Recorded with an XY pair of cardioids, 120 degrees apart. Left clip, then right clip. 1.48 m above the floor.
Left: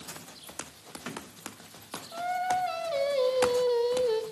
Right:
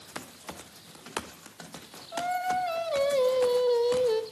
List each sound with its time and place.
2.1 s singing: 15° left, 3 m